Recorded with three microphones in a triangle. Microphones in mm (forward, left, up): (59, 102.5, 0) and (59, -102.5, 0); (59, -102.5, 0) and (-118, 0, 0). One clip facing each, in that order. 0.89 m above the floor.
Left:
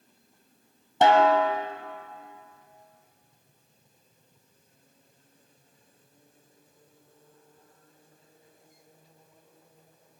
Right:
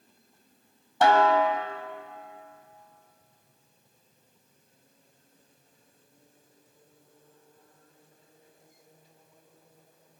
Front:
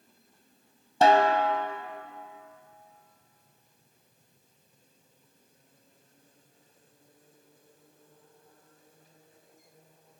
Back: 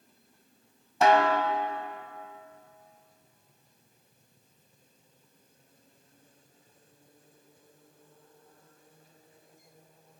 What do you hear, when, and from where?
1.0 s a snare drum: 25° left, 1.5 m